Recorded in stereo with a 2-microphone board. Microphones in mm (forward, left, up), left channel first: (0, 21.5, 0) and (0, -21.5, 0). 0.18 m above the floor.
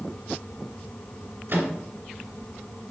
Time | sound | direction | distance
1.5 | a microwave | 55° right (ahead or behind) | 2 m